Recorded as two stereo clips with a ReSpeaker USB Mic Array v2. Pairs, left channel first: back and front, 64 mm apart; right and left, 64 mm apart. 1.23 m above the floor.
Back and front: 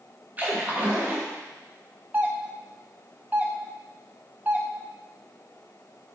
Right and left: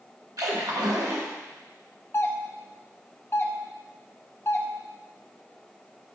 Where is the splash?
65° left, 1.2 m.